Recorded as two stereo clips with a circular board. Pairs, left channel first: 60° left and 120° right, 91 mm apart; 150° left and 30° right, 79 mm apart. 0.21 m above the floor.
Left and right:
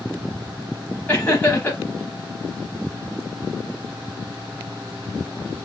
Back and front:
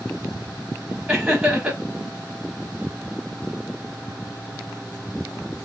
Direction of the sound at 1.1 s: 25° left.